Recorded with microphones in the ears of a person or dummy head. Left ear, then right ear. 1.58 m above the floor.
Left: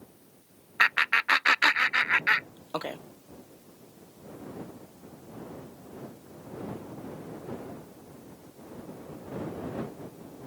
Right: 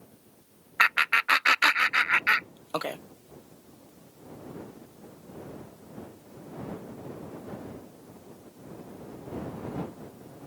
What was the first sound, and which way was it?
Laughter, 10° right (ahead or behind).